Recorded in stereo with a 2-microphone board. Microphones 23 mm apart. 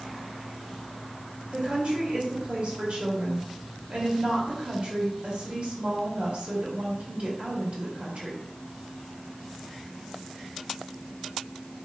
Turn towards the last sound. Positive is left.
turn(degrees=-60)  # may be behind; listen again after turning